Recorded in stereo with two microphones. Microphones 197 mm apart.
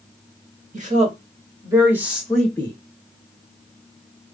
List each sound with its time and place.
0.7 s a woman speaking: 35° right (ahead or behind), 1.0 m; by 2.8 s 15° left (ahead or behind), 0.9 m